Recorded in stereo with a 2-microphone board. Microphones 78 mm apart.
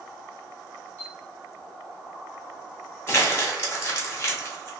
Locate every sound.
1.0 s a chime: 20° left (ahead or behind), 1.8 m
3.1 s crumpling: 35° left (ahead or behind), 1.1 m